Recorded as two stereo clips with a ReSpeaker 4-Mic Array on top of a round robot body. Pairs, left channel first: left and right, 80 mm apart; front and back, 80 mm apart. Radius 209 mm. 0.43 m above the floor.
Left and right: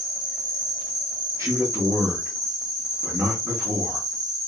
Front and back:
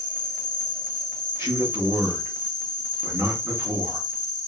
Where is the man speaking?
120° right, 1.5 m.